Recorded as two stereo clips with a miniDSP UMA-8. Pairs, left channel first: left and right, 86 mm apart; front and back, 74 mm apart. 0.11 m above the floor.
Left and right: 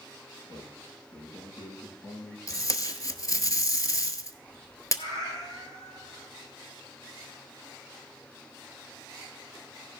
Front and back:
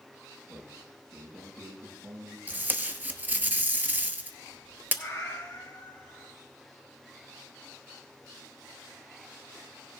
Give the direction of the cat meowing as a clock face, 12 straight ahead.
10 o'clock.